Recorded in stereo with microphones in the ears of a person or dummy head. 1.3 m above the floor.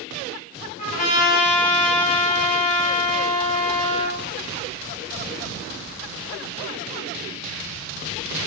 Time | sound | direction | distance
0.8 | a trumpet | 40° left (ahead or behind) | 0.6 m